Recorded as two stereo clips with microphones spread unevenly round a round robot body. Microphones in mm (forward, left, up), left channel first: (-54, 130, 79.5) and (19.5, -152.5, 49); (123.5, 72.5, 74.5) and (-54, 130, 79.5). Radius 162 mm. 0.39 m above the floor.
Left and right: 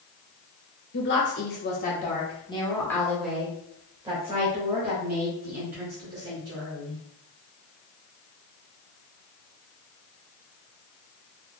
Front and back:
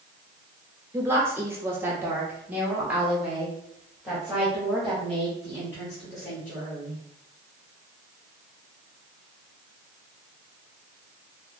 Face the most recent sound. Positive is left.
turn(degrees=-100)